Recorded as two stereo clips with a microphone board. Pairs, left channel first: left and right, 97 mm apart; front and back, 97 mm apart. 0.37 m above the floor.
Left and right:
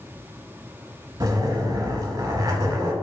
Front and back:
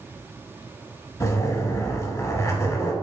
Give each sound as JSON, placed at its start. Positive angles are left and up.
{"t": 1.2, "sound": "a zipper", "azimuth_deg": -50, "distance_m": 0.7}